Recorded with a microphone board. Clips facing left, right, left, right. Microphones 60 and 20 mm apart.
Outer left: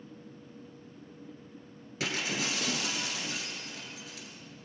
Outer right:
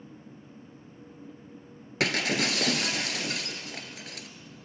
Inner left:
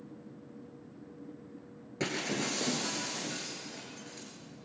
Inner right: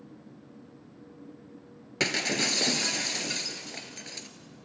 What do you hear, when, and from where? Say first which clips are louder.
2.0 s breaking glass: outer right 6 dB, inner right 7 dB; 70° right (ahead or behind), 1.5 m